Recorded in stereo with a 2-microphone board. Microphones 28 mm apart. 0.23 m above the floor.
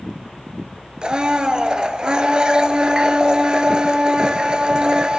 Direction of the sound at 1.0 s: 35° right (ahead or behind).